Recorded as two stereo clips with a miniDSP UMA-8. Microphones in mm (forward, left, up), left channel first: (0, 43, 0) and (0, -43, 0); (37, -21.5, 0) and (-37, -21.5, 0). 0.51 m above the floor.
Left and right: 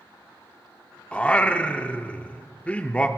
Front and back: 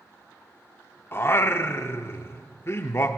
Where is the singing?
25° left, 0.6 m.